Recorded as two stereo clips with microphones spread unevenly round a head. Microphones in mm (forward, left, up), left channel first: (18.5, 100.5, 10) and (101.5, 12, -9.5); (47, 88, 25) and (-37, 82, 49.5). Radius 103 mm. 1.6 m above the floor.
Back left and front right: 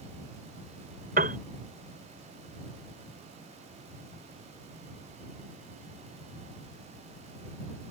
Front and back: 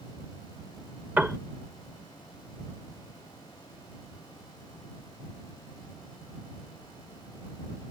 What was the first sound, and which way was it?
A piano, 95° right.